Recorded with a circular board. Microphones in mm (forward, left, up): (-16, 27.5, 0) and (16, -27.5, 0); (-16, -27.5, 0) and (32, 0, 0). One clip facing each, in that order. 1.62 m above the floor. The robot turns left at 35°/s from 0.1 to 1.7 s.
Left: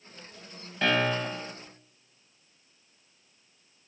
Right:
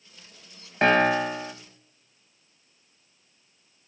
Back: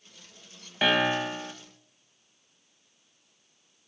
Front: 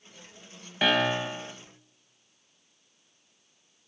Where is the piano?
60° right, 1.3 m; by 1.5 s 85° right, 1.3 m.